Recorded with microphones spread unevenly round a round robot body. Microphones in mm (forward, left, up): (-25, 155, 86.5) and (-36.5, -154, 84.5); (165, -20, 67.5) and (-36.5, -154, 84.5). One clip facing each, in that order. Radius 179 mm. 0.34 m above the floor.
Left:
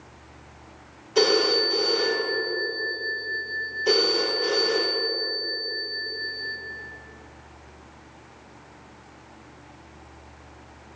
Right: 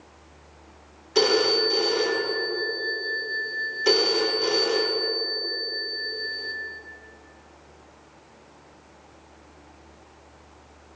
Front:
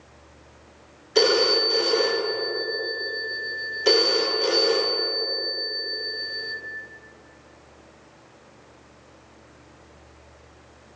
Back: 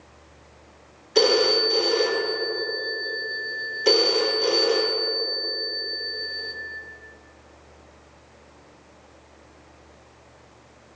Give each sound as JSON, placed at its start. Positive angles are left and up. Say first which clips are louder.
{"t": 1.1, "sound": "a phone ringing", "louder": "even, back 1 dB", "azimuth_deg": -50, "distance_m": 1.1}